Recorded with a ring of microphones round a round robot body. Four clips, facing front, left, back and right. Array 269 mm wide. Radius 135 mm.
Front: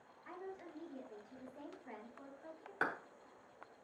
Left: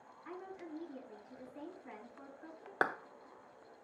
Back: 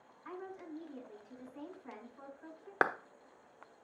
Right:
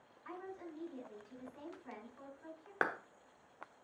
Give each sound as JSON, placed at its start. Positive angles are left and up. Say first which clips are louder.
{"t": 0.2, "sound": "a woman speaking", "louder": "even, back 4 dB", "azimuth_deg": -165, "distance_m": 5.5}
{"t": 2.8, "sound": "a clap", "louder": "left 2 dB, back 7 dB", "azimuth_deg": 170, "distance_m": 1.1}